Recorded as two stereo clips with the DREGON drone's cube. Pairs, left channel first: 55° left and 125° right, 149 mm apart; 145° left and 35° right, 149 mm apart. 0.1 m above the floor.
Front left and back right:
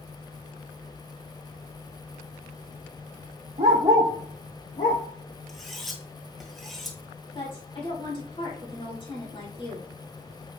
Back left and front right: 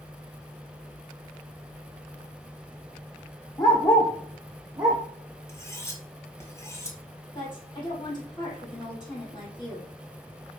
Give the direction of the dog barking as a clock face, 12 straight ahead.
5 o'clock.